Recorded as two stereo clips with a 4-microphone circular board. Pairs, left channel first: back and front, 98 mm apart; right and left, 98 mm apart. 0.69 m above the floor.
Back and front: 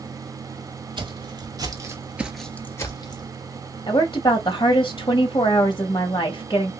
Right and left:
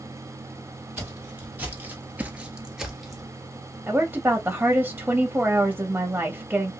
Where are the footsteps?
20° left, 1.3 m; by 3.3 s 175° right, 0.9 m.